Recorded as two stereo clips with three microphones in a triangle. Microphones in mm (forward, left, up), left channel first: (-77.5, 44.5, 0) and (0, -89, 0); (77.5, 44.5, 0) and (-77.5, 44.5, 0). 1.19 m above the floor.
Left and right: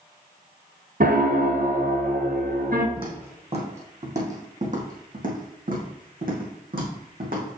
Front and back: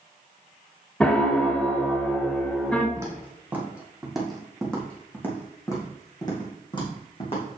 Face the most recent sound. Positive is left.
turn(degrees=-45)